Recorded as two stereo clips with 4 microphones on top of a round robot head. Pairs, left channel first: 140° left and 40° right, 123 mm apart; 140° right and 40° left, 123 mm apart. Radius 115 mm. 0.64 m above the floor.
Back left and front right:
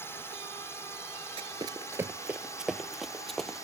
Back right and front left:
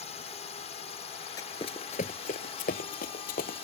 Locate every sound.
0.0 s a drone: 155° right; by 3.6 s 160° right
1.4 s running footsteps: 80° right; by 3.6 s 135° right